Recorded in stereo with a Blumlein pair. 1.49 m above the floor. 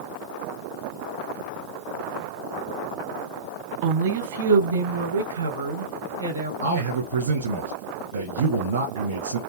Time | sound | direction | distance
3.8 | a woman speaking | 45° right | 0.9 m
6.6 | a man speaking | 70° right | 1.8 m